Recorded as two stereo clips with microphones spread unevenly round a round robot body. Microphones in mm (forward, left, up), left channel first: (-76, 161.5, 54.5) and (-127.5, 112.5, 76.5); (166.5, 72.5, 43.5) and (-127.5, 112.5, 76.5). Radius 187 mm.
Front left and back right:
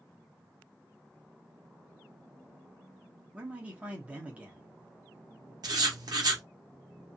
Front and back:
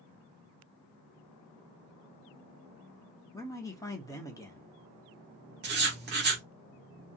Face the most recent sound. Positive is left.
turn(degrees=-135)